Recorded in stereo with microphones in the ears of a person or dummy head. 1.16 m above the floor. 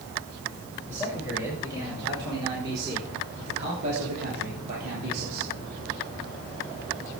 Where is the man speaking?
15° right (ahead or behind), 5.5 m; by 5.5 s 65° right (ahead or behind), 2.5 m.